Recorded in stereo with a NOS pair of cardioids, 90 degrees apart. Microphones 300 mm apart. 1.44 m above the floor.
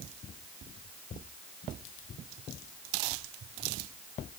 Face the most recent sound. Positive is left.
No sound to turn to.